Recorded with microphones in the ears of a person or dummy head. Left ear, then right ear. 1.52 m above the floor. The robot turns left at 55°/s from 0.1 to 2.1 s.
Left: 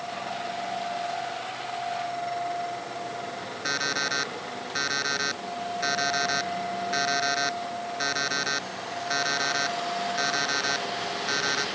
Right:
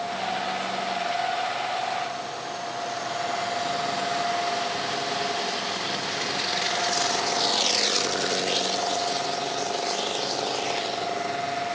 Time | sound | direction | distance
3.6 | an alarm clock | 60° left (ahead or behind) | ?